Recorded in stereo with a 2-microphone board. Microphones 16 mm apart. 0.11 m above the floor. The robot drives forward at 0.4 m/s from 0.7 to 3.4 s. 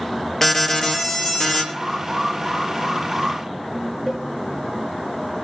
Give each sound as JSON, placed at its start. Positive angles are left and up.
{"t": 0.4, "sound": "an alarm", "side_deg": 10, "distance_m": 3.5}
{"t": 1.7, "sound": "an alarm", "side_deg": -30, "distance_m": 7.5}
{"t": 4.1, "sound": "a cowbell", "side_deg": -35, "distance_m": 7.5}